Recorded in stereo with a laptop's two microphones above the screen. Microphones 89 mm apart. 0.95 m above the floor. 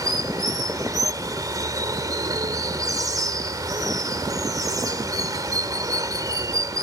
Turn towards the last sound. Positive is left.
turn(degrees=-40)  # may be behind; listen again after turning